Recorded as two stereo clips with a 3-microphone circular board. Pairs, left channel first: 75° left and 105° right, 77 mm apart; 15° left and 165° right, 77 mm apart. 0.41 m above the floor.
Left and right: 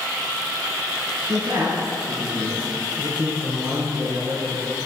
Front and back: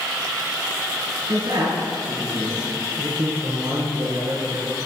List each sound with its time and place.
1.3 s a man speaking: straight behind, 3.5 m